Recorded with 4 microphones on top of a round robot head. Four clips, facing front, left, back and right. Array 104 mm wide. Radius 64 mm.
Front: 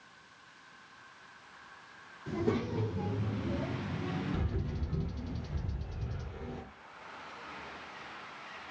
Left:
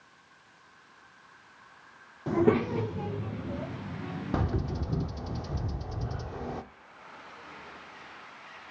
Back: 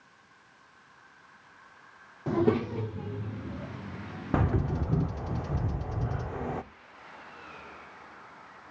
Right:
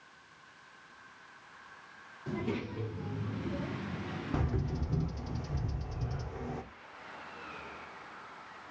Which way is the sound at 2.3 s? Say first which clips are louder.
Left 12 dB, back 7 dB; 140° left.